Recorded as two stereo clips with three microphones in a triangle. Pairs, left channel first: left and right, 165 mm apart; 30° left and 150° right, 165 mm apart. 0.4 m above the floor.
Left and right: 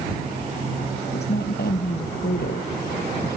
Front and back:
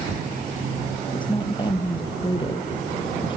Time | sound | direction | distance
1.1 | a woman speaking | 90° left | ?